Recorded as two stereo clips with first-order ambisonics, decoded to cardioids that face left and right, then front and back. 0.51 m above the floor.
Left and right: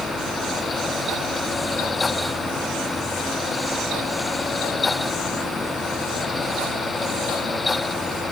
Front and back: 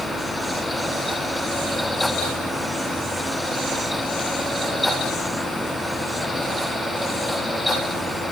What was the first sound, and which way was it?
Only background noise.